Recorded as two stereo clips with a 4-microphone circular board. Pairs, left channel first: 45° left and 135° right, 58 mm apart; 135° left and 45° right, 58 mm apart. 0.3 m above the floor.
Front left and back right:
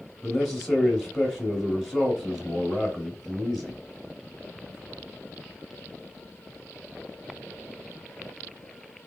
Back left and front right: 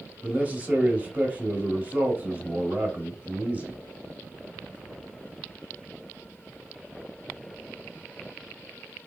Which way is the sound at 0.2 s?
45° right.